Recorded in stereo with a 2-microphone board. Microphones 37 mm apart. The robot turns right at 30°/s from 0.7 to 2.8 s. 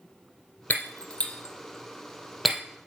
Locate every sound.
0.7 s breaking glass: 45° left (ahead or behind), 1.8 m; by 2.6 s 10° right (ahead or behind), 1.8 m